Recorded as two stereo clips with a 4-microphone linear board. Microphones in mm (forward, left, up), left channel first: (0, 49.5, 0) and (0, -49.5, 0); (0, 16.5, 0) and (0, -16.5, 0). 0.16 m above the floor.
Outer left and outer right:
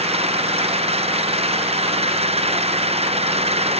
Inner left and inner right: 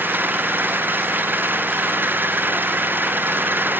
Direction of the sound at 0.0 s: 80° right.